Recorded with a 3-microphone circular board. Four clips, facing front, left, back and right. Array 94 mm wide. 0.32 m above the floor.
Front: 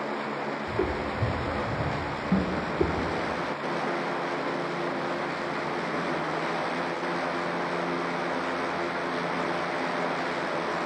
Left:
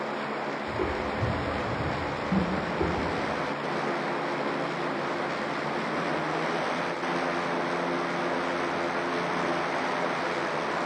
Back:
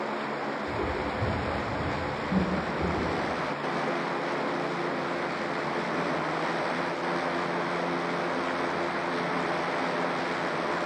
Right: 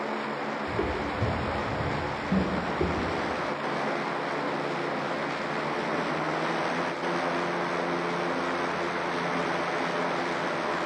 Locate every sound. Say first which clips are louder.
0.7 s footsteps: even, front 3 dB; 50° right, 2.0 m; by 2.9 s 10° right, 3.5 m
3.0 s tapping: even, even; 40° right, 0.9 m